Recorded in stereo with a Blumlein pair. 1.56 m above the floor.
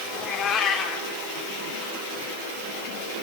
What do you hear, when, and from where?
0.1 s a cat meowing: 30° left, 2.5 m